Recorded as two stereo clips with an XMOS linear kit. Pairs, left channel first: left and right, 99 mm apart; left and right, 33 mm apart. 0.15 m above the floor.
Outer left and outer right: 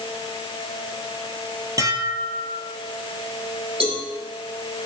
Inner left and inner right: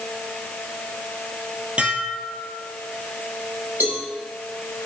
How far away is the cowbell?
About 7 m.